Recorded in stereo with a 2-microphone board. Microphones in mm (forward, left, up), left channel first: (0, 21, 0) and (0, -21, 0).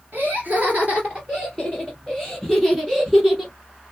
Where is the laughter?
45° right (ahead or behind), 1.8 m; by 3.5 s 10° right (ahead or behind), 3.5 m.